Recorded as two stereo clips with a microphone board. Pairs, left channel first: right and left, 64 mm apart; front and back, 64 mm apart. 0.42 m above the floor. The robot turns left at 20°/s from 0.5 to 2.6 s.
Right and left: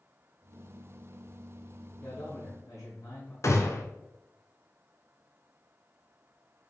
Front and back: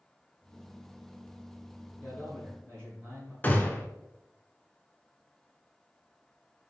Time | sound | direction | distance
2.0 | a man speaking | 65° right | 1.5 m
3.4 | a gunshot | 60° right | 0.7 m